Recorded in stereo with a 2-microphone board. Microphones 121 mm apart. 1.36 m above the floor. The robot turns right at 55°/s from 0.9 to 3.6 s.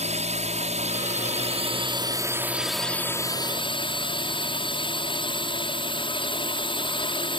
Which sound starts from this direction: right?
A drone, at 0.0 s.